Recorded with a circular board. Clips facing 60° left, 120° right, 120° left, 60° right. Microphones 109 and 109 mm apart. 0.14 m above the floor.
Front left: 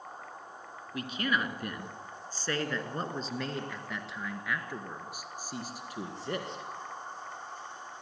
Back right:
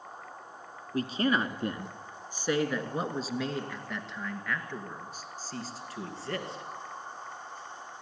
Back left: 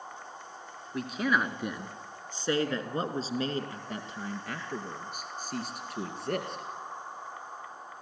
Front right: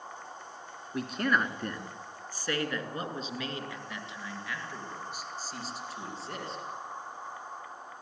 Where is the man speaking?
150° right, 1.9 m; by 6.6 s 130° left, 3.5 m.